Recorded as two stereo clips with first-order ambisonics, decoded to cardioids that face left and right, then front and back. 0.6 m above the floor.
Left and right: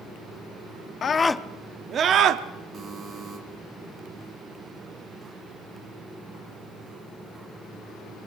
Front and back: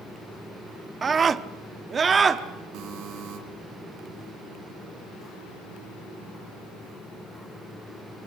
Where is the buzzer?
150° right, 3.5 m.